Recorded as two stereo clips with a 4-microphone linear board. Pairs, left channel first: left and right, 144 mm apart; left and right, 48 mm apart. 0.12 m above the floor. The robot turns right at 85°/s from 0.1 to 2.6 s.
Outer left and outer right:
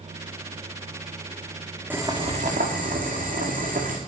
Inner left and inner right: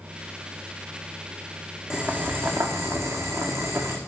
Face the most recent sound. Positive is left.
turn(degrees=-110)